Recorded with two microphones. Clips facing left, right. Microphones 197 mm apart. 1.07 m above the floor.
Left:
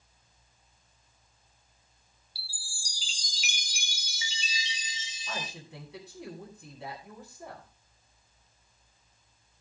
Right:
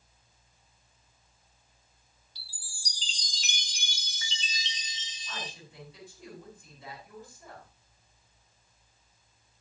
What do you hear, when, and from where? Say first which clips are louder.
2.4 s a chime: left 7 dB; 10° left (ahead or behind), 1.3 m
5.3 s a woman speaking: left 3 dB; 75° left (ahead or behind), 9 m